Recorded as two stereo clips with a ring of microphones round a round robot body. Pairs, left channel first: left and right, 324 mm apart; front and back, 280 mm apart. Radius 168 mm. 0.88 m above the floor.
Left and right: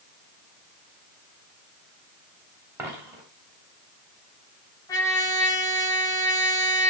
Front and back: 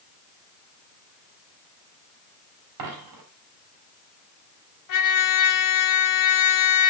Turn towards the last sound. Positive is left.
turn(degrees=10)